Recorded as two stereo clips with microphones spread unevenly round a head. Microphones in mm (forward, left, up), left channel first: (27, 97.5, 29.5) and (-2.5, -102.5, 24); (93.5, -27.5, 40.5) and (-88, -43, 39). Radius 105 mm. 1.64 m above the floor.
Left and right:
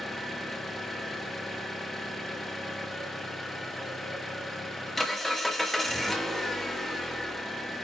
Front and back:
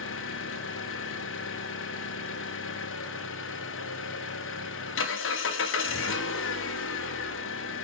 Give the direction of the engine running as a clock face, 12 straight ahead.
12 o'clock.